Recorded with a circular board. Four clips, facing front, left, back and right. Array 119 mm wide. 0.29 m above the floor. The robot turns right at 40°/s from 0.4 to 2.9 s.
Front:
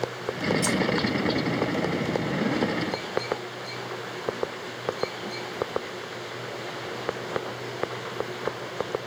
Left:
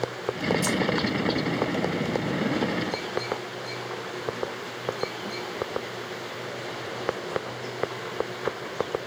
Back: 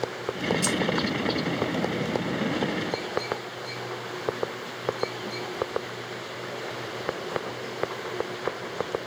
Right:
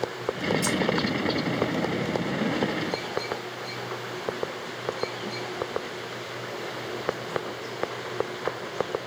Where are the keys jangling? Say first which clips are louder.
Even, front 1 dB; 5° right, 1.1 m; by 0.8 s straight ahead, 1.1 m.